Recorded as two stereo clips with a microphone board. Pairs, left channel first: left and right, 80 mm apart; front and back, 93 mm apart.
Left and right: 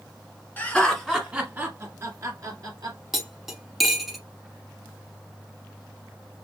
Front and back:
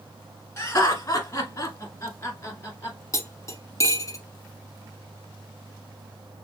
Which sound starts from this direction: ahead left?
Laughter, at 0.6 s.